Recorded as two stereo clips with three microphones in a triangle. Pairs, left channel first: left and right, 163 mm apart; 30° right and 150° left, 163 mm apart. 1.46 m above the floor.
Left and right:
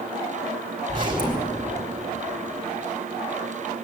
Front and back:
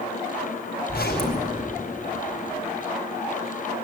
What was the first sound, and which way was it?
A zipper, 30° right.